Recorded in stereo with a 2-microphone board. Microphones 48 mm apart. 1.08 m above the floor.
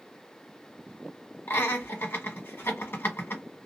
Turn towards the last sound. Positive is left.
turn(degrees=50)  # may be behind; listen again after turning